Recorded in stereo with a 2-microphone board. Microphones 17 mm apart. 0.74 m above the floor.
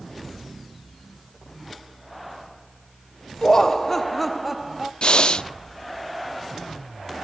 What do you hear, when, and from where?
3.4 s laughter: 35° left (ahead or behind), 0.9 m; by 4.9 s 15° right (ahead or behind), 0.9 m
5.0 s breathing: 55° left (ahead or behind), 0.8 m